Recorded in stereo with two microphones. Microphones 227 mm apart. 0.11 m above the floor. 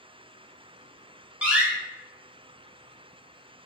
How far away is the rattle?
No rattle in this recording.